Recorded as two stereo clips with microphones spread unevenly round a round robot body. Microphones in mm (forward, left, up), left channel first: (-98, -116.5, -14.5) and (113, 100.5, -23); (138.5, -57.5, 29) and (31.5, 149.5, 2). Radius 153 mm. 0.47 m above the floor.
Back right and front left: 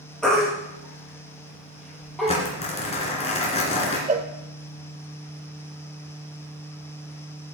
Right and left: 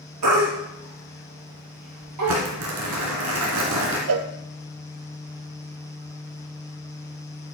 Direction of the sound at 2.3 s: 155° left.